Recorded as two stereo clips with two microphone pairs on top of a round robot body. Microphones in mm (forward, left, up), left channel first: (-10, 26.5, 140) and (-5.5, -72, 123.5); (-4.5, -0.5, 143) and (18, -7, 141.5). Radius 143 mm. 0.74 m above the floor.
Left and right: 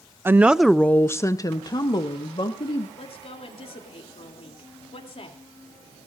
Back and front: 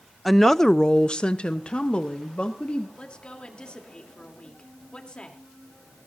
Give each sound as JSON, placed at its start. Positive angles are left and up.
{"t": 0.2, "sound": "a woman speaking", "azimuth_deg": -110, "distance_m": 0.7}
{"t": 3.0, "sound": "a woman speaking", "azimuth_deg": 120, "distance_m": 3.0}